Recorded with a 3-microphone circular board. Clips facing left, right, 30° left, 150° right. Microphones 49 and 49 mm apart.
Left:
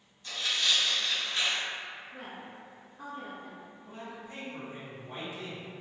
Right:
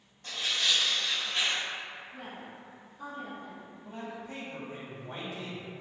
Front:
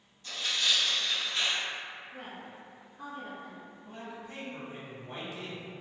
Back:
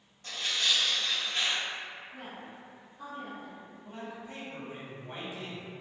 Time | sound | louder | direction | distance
0.2 | tearing paper | even, even | 115° right | 1.4 m
2.1 | a woman speaking | even, even | 85° left | 0.7 m
3.8 | a man speaking | right 4 dB, back 2 dB | 80° right | 1.1 m